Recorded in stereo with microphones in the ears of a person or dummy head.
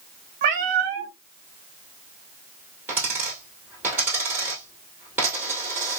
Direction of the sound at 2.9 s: 15° right (ahead or behind).